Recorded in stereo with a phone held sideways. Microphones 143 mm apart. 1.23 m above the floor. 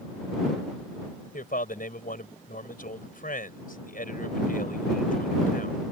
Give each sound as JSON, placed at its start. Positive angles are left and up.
{"t": 1.3, "sound": "a man speaking", "side_deg": 80}